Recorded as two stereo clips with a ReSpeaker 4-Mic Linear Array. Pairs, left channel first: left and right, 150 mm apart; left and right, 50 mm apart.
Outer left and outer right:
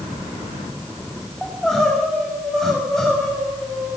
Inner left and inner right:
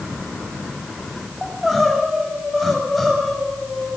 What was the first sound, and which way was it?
Crying, 5° left (ahead or behind).